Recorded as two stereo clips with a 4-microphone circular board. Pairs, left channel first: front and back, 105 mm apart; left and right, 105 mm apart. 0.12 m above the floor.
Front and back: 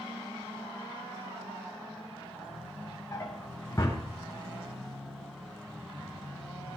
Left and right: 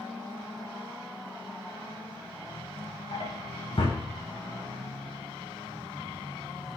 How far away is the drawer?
About 5.5 m.